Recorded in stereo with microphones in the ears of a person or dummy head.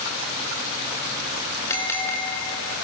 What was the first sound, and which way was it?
A bell, 15° left (ahead or behind).